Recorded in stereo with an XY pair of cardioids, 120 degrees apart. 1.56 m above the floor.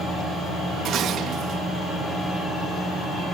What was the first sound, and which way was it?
Dishes clattering, 70° right.